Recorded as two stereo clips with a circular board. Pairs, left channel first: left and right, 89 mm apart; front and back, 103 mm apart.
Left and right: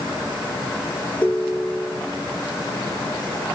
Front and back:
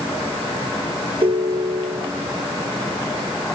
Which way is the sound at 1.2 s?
155° left.